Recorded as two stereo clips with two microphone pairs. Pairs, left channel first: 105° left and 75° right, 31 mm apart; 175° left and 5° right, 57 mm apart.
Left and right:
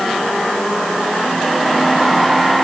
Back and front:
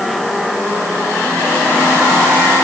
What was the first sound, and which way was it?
Only background noise.